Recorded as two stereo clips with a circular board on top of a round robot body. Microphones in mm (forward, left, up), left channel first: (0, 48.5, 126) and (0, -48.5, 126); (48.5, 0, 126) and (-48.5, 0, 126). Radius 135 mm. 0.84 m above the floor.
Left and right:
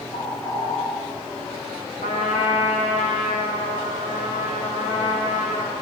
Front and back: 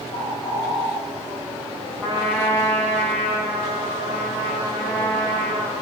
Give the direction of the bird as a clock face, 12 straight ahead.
11 o'clock.